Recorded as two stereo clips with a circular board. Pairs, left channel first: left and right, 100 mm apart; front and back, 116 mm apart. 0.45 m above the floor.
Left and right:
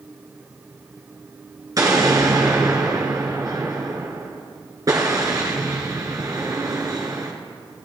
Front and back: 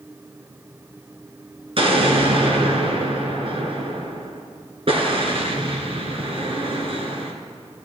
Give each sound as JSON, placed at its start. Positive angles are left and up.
{"t": 1.8, "sound": "an explosion", "azimuth_deg": -145, "distance_m": 2.0}